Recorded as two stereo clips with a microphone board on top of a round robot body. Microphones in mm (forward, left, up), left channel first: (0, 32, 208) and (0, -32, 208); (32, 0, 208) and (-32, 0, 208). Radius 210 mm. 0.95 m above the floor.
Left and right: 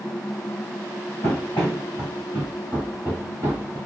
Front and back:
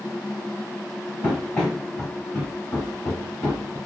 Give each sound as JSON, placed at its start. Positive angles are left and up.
{"t": 1.2, "sound": "running footsteps", "azimuth_deg": 95, "distance_m": 1.0}